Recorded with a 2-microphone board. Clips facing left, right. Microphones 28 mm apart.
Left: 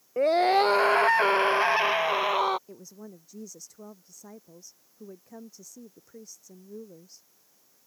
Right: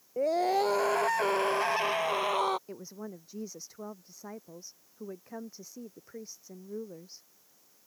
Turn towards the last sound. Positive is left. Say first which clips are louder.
# right 3 dB
turn(degrees=-30)  # may be behind; listen again after turning